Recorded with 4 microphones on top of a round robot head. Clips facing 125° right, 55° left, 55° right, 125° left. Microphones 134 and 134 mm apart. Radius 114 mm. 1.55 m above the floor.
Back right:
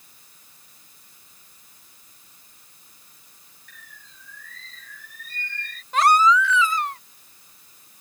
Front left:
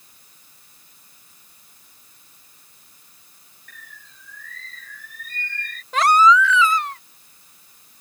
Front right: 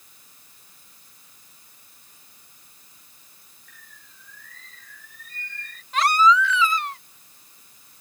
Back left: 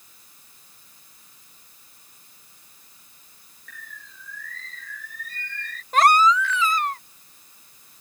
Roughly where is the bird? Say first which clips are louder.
Front left 3 dB, back left 10 dB; left.